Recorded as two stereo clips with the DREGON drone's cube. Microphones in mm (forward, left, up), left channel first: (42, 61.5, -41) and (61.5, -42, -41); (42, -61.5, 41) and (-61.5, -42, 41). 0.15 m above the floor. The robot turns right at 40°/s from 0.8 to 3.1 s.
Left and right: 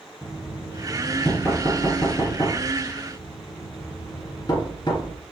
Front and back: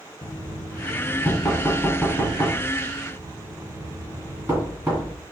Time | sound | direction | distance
0.2 | knocking | 15° left | 1.6 m